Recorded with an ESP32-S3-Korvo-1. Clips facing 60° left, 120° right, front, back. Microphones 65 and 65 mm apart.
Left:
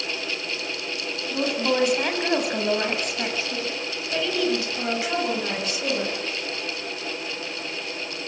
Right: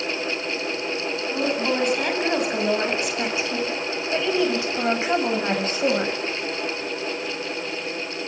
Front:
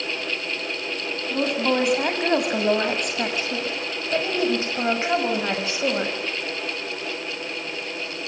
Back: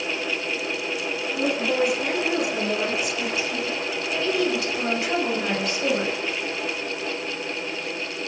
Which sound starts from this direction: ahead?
A woman speaking, at 1.3 s.